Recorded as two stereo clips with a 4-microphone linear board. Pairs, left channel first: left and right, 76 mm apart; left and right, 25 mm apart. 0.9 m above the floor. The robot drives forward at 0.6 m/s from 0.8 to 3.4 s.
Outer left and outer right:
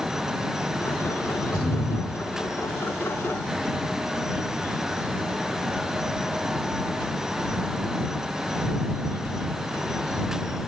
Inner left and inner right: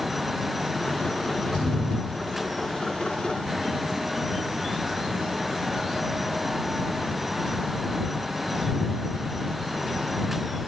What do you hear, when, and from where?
1.5 s a thud: 15° right (ahead or behind), 6.5 m